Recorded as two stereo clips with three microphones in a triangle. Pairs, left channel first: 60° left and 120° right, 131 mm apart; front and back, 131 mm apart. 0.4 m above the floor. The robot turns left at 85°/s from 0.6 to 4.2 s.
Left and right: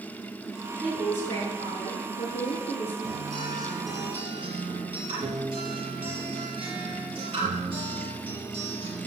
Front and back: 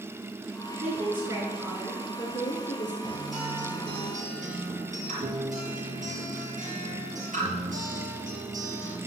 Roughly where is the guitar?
Ahead right.